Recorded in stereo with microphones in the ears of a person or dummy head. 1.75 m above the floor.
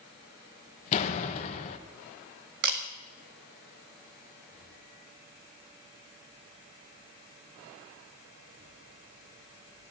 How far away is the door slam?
About 1.3 m.